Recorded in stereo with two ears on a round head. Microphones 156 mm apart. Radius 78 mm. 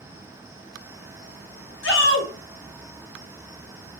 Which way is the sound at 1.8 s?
75° left (ahead or behind).